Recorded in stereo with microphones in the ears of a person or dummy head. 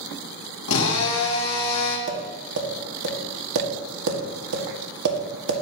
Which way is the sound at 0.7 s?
80° left.